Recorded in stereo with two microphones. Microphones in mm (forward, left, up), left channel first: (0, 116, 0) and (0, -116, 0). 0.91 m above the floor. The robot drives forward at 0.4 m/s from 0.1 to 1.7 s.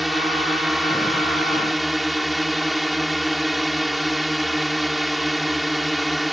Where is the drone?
Centre (ahead or behind).